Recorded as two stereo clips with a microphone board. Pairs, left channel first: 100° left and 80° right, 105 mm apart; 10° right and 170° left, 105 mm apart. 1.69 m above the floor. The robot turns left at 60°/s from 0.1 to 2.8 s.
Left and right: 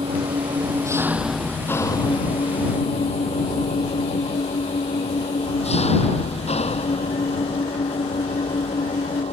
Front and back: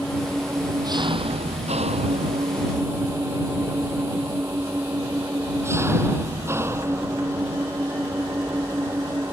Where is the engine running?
95° right; by 9.3 s 105° left.